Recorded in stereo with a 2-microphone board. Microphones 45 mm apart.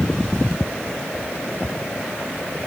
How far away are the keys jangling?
I don't hear keys jangling.